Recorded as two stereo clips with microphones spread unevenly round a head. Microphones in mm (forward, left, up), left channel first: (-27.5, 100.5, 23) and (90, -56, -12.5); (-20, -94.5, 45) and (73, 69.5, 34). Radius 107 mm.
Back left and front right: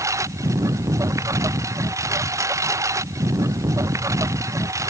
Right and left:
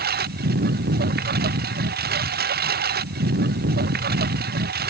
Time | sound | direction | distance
0.0 | a lawn mower | 20° left | ?